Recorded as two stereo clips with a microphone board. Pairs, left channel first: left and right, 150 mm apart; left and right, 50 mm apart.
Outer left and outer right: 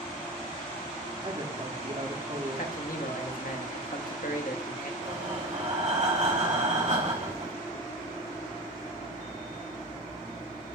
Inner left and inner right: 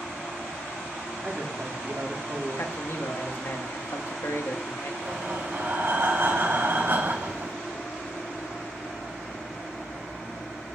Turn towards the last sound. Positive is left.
turn(degrees=-50)  # may be behind; listen again after turning